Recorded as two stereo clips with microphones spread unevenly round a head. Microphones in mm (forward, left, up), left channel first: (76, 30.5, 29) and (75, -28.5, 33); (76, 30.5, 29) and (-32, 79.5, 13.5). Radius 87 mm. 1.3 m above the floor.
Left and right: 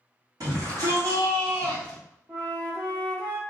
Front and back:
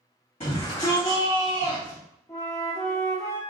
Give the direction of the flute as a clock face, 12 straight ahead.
3 o'clock.